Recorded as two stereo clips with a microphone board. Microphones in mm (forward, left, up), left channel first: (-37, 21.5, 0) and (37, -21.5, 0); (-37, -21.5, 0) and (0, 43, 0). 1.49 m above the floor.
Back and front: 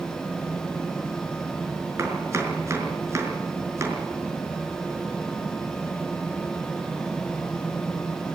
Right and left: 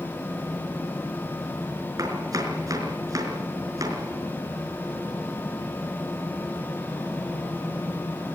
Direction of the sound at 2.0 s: 25° left.